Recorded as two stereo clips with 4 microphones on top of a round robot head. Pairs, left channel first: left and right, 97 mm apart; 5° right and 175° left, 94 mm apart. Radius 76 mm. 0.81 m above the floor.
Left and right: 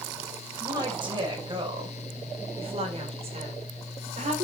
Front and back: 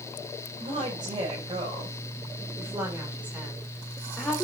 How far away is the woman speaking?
About 5 m.